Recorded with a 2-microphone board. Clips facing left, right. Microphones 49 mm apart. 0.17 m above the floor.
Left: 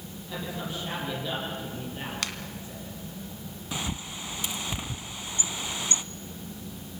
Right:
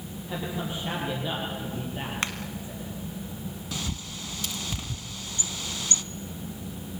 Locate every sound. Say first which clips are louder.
0.3 s a man speaking: right 2 dB; 20° right (ahead or behind), 6.5 m
2.2 s a finger snap: right 5 dB; 35° right (ahead or behind), 1.7 m
3.7 s a bird: left 4 dB; 20° left (ahead or behind), 0.9 m